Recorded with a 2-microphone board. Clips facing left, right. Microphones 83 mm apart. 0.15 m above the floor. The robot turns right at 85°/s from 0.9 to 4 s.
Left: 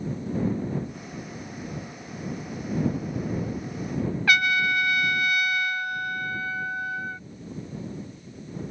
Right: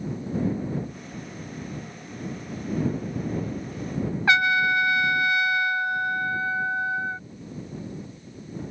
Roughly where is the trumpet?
Right.